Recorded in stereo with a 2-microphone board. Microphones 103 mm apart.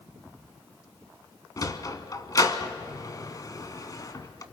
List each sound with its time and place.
1.6 s a sliding door: 40° left (ahead or behind), 1.0 m